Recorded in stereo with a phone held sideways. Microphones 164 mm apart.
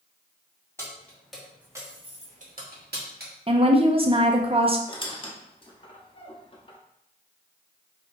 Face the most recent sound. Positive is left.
turn(degrees=30)  # may be behind; listen again after turning